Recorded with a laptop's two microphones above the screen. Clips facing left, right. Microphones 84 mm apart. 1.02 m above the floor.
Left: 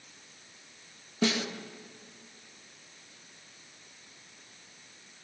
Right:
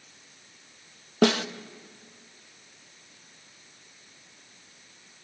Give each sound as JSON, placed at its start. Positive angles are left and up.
{"t": 1.2, "sound": "a snare drum", "side_deg": -65, "distance_m": 0.9}